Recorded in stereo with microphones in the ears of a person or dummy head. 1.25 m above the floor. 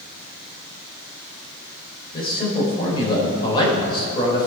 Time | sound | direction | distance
2.1 | a man speaking | 25° left (ahead or behind) | 4.5 m